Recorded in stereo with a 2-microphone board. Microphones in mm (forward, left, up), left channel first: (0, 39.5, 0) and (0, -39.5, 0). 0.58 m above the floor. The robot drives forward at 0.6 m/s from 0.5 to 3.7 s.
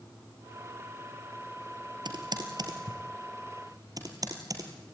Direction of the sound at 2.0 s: 65° right (ahead or behind).